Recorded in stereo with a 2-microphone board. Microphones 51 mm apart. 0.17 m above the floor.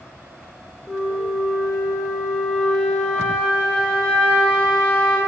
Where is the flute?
20° left (ahead or behind), 3.5 m.